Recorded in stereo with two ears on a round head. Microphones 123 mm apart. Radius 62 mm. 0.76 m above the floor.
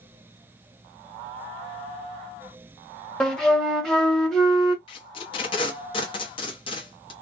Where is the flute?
5° left (ahead or behind), 0.6 m.